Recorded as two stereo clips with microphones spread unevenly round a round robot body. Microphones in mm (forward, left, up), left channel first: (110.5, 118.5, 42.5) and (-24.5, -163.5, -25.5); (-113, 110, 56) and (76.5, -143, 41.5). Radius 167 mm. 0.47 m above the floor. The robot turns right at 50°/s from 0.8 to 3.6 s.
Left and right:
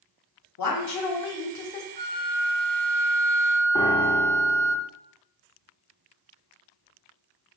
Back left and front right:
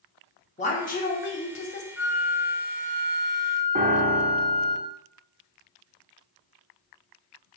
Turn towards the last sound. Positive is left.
turn(degrees=-20)